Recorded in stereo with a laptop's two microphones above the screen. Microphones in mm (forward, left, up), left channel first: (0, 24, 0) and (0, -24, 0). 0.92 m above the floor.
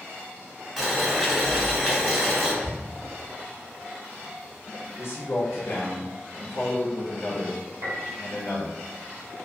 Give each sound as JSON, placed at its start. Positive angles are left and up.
{"t": 0.8, "sound": "boiling", "side_deg": 0, "distance_m": 1.5}
{"t": 2.6, "sound": "ticking", "side_deg": 0, "distance_m": 0.6}
{"t": 5.0, "sound": "a man speaking", "side_deg": 55, "distance_m": 0.7}
{"t": 7.8, "sound": "a piano", "side_deg": -60, "distance_m": 1.2}